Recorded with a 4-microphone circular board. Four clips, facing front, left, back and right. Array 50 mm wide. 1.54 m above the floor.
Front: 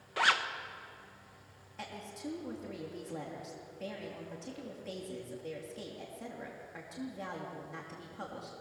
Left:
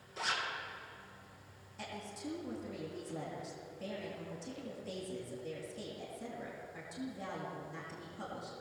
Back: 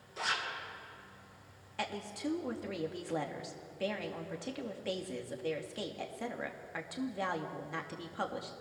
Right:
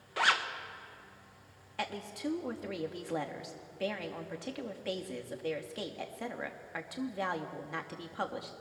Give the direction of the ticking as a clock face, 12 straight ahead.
I don't hear ticking.